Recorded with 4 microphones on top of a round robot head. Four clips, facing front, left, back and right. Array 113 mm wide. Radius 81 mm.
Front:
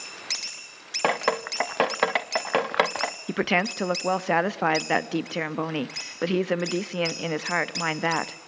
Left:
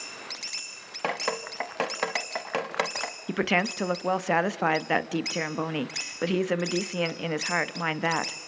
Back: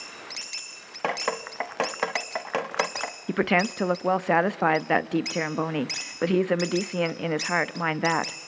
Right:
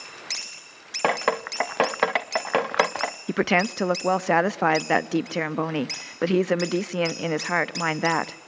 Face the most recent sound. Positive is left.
turn(degrees=-110)